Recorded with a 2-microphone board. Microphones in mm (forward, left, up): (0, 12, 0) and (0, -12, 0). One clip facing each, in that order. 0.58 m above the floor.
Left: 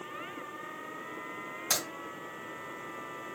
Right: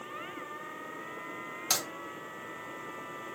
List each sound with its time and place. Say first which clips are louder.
1.7 s a crack: even; 60° right (ahead or behind), 2.5 m